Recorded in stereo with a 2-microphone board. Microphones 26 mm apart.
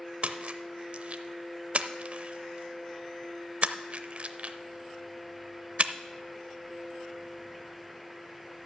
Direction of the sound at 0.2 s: 50° right (ahead or behind).